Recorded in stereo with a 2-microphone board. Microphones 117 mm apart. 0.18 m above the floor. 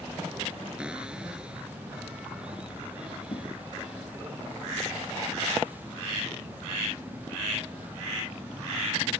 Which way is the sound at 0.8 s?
10° right (ahead or behind).